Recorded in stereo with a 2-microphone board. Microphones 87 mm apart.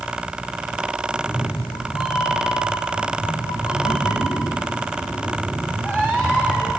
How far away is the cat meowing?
About 2 m.